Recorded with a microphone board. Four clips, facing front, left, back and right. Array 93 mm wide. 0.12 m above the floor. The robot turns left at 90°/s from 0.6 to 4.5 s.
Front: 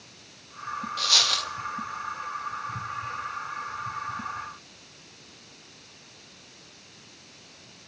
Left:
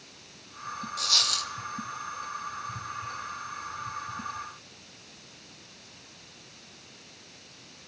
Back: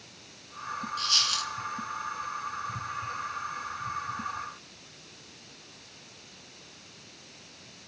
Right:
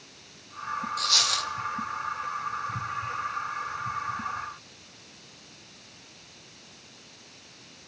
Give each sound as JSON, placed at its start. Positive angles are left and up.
{"t": 1.0, "sound": "a dropped coin", "azimuth_deg": 15, "distance_m": 1.0}